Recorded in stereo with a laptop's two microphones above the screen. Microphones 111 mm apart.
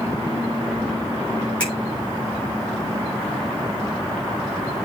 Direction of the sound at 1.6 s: 10° left (ahead or behind).